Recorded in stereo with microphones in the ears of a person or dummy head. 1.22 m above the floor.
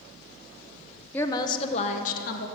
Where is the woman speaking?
15° left (ahead or behind), 0.8 m; by 2.5 s 60° left (ahead or behind), 1.5 m.